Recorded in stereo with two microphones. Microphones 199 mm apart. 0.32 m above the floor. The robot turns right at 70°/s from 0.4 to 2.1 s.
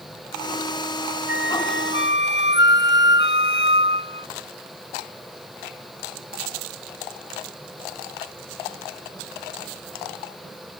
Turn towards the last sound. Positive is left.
turn(degrees=110)